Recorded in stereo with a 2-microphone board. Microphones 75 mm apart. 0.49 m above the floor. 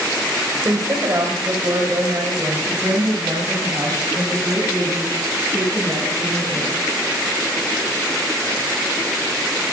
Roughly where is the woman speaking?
Right.